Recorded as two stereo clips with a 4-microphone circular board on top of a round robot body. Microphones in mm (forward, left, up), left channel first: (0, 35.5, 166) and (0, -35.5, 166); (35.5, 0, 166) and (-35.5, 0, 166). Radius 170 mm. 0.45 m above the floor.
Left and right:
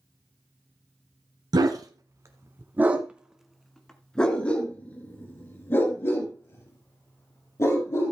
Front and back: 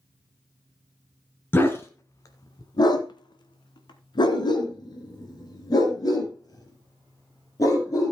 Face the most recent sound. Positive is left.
turn(degrees=40)